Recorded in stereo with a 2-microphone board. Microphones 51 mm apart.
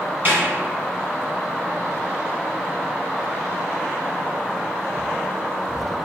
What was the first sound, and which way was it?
A snare drum, 40° right (ahead or behind).